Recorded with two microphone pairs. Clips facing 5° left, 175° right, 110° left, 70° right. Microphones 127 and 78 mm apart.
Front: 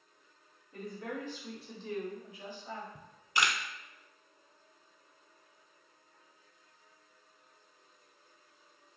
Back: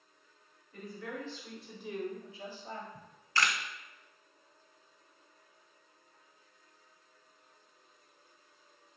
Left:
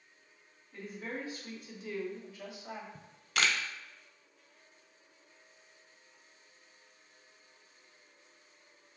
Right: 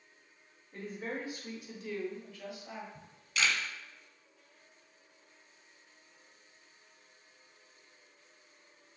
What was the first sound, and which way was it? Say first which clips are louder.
A woman speaking: front 2 dB, right 2 dB; 30° right.